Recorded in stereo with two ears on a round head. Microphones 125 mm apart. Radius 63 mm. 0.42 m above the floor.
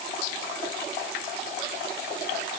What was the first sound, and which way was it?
Only background noise.